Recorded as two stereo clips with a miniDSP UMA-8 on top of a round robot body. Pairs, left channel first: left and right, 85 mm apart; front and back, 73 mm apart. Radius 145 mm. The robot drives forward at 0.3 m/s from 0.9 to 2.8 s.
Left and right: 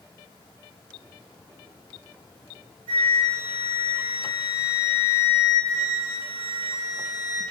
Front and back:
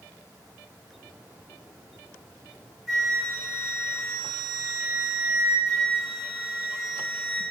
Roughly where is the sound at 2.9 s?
Right.